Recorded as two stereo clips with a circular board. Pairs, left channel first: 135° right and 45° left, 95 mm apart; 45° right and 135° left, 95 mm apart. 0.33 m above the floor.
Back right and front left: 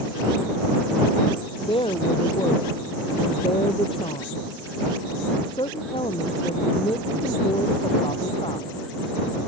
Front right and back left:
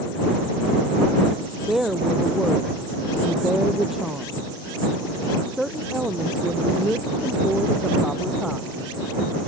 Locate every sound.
1.7 s a woman speaking: 140° right